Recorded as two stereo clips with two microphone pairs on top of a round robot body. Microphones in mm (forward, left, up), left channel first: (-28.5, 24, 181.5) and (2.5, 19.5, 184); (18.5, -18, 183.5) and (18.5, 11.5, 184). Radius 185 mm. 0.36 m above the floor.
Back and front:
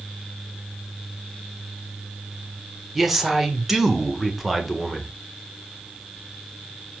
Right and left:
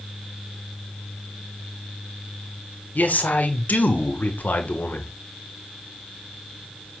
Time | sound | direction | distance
3.0 | a man speaking | 95° right | 2 m